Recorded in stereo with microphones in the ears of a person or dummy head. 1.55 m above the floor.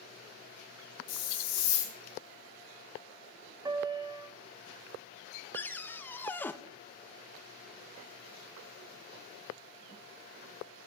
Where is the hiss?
70° left (ahead or behind), 1.7 m.